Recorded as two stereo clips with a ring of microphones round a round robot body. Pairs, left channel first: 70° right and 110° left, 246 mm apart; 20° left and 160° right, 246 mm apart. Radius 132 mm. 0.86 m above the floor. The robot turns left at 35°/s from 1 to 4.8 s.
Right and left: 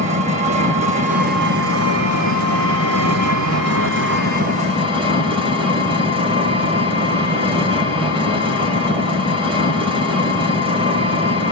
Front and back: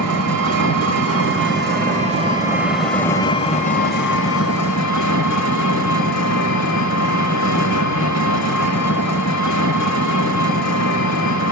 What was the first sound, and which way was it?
An engine running, 175° left.